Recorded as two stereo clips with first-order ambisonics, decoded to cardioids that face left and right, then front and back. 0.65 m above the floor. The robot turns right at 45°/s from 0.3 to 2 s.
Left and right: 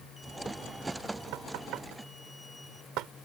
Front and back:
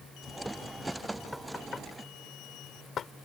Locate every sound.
1.3 s knocking: 85° right; by 3.1 s 55° right